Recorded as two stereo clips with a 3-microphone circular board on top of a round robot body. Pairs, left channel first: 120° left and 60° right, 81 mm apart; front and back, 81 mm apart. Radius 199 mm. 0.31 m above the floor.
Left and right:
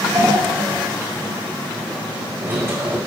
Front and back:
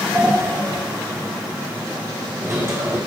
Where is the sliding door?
125° right, 1.7 m.